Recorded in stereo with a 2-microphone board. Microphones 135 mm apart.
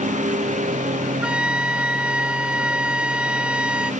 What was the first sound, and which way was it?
A lawn mower, 65° right (ahead or behind).